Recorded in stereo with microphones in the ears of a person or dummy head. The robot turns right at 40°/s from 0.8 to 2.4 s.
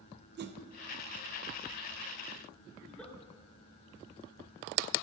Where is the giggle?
5° left (ahead or behind), 1.5 m.